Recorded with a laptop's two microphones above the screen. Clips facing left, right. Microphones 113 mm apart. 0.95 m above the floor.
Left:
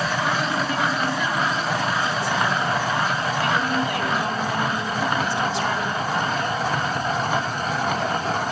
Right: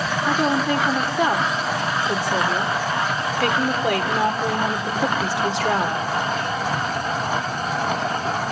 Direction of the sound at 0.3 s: 85° right.